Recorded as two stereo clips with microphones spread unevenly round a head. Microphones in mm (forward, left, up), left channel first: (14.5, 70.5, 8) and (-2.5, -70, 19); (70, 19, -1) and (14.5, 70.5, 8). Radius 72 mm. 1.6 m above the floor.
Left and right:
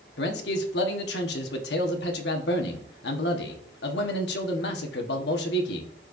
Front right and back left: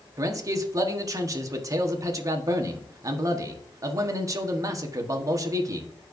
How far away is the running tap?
No running tap in this recording.